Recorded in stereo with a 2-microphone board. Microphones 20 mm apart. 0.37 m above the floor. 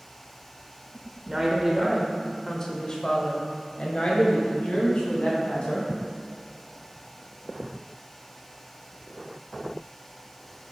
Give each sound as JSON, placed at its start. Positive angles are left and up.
{"t": 1.3, "sound": "a woman speaking", "side_deg": -20, "distance_m": 0.9}